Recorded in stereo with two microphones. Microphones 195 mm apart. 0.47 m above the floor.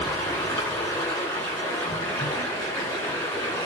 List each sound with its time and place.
0.0 s running water: 15° left (ahead or behind), 1.3 m